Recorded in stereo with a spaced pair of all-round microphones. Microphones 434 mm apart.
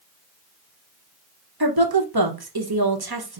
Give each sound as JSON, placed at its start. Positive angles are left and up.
{"t": 1.6, "sound": "a woman speaking", "side_deg": -60, "distance_m": 1.0}